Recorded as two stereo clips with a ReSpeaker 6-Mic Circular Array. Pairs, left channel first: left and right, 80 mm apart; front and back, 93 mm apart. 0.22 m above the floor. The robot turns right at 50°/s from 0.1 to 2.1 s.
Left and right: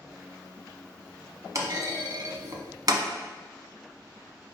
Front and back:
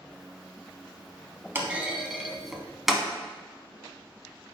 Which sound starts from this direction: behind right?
A clunk, at 1.6 s.